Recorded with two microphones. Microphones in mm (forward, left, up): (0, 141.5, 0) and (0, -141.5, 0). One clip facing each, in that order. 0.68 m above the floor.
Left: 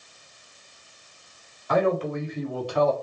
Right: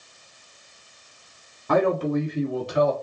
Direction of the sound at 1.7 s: 50° right (ahead or behind).